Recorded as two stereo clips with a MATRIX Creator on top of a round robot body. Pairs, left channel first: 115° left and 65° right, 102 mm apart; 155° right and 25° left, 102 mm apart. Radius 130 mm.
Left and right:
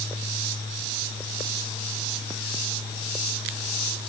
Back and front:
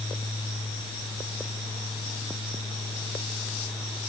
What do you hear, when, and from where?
Only background noise.